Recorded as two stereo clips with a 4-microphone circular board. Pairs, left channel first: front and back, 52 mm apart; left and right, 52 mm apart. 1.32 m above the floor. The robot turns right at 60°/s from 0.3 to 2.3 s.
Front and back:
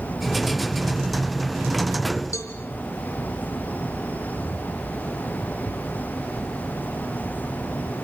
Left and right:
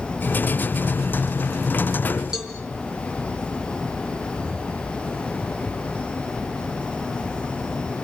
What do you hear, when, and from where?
2.3 s a cowbell: 10° right, 3.5 m